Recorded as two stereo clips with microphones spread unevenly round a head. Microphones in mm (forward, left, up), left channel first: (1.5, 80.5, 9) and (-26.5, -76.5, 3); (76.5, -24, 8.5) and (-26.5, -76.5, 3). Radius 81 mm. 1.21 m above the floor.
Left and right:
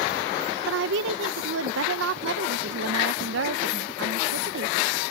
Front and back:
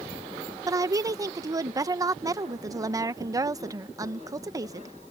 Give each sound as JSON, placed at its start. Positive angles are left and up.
{"t": 0.7, "sound": "a woman speaking", "azimuth_deg": -95}